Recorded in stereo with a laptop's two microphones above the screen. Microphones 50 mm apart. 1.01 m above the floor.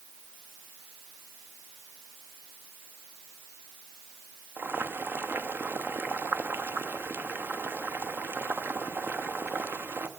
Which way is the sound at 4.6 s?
45° right (ahead or behind).